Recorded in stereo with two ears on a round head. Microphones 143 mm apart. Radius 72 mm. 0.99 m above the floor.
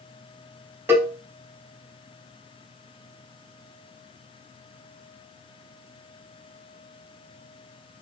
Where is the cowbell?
15° right (ahead or behind), 2.5 m.